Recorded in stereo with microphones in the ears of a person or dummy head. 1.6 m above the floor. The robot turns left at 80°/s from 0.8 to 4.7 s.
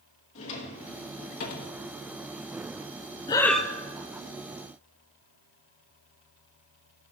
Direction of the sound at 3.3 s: 20° left.